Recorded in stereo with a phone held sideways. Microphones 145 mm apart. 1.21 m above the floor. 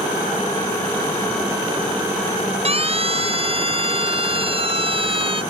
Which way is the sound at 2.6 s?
45° right (ahead or behind).